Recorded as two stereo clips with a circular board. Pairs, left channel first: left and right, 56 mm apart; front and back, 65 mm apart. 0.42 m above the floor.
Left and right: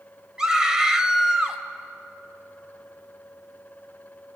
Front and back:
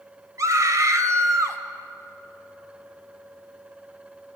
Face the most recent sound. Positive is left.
turn(degrees=-165)